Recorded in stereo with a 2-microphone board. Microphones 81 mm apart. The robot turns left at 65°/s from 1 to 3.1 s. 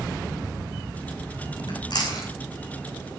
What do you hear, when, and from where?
1.7 s chewing: 80° left, 6 m; by 2.3 s 35° left (ahead or behind), 6 m